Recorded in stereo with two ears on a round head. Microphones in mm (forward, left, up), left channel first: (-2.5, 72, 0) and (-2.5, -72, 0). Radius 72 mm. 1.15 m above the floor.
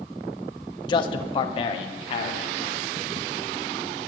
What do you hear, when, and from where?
0.9 s a man speaking: 30° left (ahead or behind), 1.1 m; by 2.8 s 40° left (ahead or behind), 3 m